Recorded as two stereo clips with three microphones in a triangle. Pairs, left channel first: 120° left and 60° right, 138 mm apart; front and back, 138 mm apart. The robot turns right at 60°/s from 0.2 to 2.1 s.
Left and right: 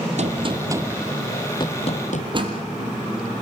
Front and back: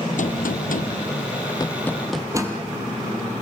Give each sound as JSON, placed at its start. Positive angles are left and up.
{"t": 0.2, "sound": "a gunshot", "azimuth_deg": -25, "distance_m": 1.0}
{"t": 2.3, "sound": "a door slam", "azimuth_deg": -115, "distance_m": 3.5}